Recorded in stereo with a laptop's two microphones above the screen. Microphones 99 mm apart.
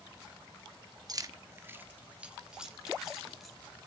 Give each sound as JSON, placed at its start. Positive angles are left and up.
{"t": 1.1, "sound": "keys jangling", "side_deg": -40, "distance_m": 0.8}